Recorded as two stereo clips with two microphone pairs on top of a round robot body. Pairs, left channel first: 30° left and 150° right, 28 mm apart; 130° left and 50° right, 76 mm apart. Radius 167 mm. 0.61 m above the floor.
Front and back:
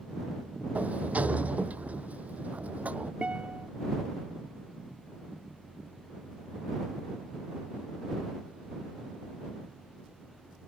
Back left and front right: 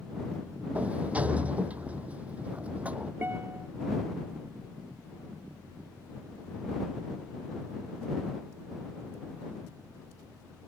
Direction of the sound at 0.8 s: 125° right.